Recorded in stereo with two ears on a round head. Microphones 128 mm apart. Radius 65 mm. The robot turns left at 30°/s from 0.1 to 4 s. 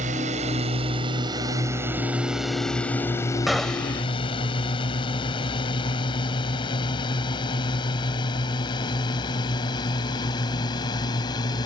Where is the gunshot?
Centre (ahead or behind); by 4.0 s 15° left (ahead or behind).